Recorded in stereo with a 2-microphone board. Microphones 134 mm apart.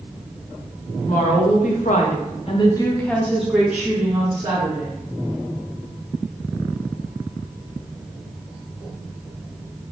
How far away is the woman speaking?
About 1.1 m.